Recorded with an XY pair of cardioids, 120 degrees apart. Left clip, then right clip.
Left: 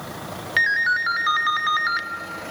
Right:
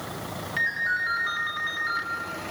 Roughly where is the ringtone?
Ahead left.